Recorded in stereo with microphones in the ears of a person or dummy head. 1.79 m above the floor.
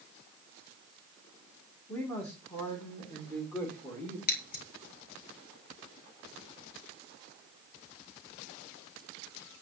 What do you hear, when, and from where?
1.9 s a man speaking: 10° left (ahead or behind), 2.5 m
4.3 s scissors: 50° left (ahead or behind), 2 m